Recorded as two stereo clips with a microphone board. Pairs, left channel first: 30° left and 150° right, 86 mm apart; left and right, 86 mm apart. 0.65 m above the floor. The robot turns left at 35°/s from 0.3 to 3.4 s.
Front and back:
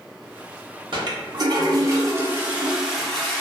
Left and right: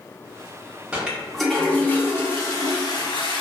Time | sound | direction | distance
0.9 | a toilet flushing | 165° right | 0.7 m